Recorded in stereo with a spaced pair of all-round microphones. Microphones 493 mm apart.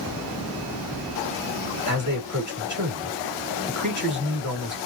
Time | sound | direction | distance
1.9 | a man speaking | 35° right (ahead or behind) | 2.5 m